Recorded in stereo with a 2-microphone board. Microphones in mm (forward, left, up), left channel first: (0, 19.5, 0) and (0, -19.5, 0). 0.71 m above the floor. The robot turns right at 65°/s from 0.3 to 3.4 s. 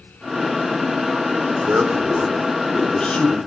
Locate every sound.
1.6 s a man speaking: 75° right, 2.5 m; by 3.4 s 40° left, 2.5 m